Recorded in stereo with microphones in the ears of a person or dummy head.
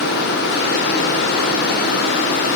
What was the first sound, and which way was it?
Only background noise.